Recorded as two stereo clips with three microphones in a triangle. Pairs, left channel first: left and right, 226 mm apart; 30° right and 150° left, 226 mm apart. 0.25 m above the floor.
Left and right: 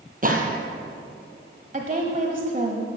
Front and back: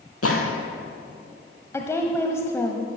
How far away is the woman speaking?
About 1.2 m.